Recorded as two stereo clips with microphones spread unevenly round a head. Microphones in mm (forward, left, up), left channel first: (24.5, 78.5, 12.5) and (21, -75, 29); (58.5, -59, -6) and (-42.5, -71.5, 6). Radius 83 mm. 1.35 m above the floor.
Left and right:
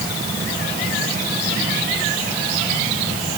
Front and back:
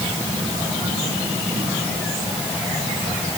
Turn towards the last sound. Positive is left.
No sound to turn to.